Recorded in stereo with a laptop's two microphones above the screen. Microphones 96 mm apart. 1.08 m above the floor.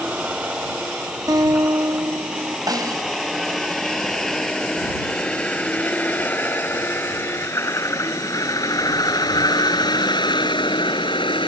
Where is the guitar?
45° right (ahead or behind).